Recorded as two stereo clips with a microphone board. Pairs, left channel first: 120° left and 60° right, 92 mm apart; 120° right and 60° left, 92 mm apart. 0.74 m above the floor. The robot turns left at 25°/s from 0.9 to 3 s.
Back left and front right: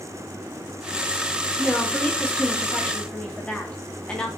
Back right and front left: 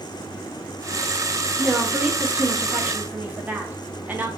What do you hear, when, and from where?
1.6 s a woman speaking: 95° left, 0.5 m; by 4.3 s 60° left, 0.5 m